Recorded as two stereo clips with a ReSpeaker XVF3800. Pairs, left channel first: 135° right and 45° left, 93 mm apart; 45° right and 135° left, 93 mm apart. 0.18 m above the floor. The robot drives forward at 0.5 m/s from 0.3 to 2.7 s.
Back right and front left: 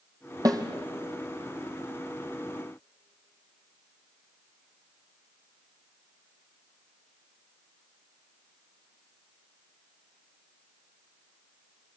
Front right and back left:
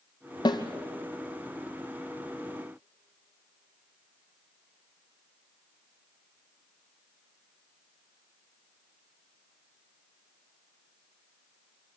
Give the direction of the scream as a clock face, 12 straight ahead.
No scream in this recording.